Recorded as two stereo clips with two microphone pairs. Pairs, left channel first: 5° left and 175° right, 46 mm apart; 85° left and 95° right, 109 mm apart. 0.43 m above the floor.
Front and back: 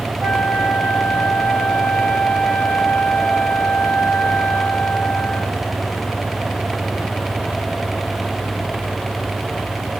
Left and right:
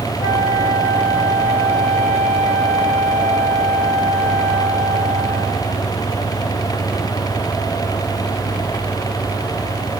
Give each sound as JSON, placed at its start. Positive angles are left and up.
{"t": 0.2, "sound": "a flute", "azimuth_deg": -155, "distance_m": 1.9}